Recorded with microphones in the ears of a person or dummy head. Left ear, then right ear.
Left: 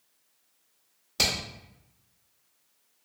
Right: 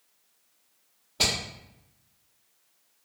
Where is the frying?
No frying in this recording.